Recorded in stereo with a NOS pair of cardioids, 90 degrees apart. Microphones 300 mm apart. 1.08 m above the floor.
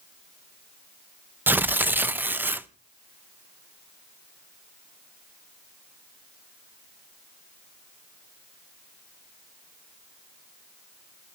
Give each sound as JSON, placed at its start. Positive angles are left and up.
{"t": 1.5, "sound": "tearing paper", "azimuth_deg": -5, "distance_m": 0.7}